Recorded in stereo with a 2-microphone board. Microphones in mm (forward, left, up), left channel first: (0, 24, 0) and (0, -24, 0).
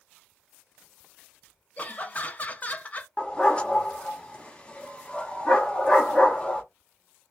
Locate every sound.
1.8 s laughter: 30° left (ahead or behind), 0.5 m
3.2 s a dog barking: 20° left (ahead or behind), 0.6 m